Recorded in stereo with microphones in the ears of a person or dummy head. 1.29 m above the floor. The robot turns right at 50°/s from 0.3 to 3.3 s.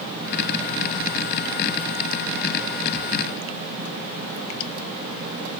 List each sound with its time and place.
Only background noise.